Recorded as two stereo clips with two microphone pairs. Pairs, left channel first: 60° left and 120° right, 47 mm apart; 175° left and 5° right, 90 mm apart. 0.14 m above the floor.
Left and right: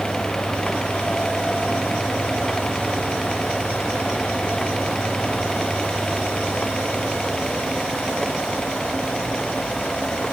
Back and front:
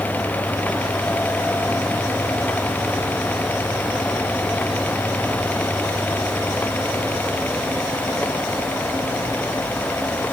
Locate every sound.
Only background noise.